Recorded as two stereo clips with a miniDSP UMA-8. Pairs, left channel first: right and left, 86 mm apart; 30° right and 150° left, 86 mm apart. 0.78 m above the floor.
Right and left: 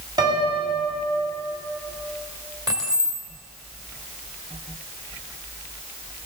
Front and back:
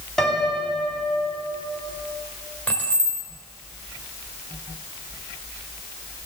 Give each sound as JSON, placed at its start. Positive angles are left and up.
{"t": 0.2, "sound": "a piano", "azimuth_deg": 55, "distance_m": 1.7}
{"t": 2.7, "sound": "keys jangling", "azimuth_deg": 45, "distance_m": 1.6}